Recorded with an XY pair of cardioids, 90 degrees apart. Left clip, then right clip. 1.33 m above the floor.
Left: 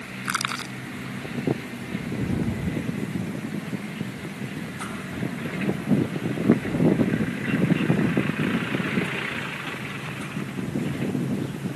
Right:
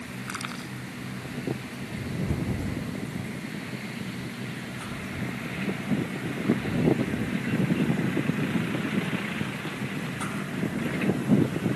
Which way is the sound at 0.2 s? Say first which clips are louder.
Left 10 dB; 70° left.